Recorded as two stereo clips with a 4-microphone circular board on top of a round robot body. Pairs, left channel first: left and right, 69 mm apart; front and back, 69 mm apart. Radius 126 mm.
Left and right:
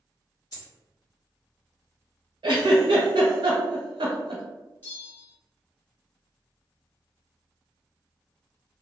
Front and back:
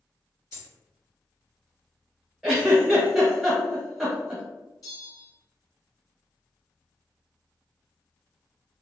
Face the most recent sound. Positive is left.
turn(degrees=30)